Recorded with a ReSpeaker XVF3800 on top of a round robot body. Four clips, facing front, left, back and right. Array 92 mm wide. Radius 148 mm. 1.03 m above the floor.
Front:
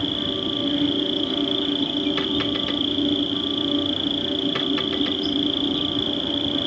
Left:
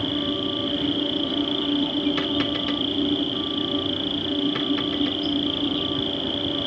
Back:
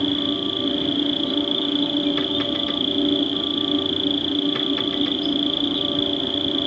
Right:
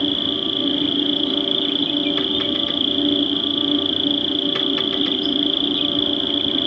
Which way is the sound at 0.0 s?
70° right.